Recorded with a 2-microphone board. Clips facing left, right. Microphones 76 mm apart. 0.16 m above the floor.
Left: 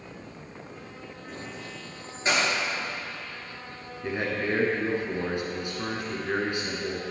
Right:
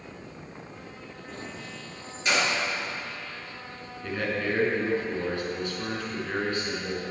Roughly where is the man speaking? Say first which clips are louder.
Even; centre.